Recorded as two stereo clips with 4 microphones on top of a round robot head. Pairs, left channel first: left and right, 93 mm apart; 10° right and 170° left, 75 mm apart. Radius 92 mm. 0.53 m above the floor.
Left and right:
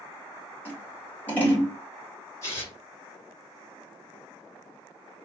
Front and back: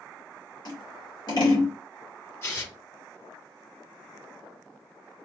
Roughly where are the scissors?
Ahead.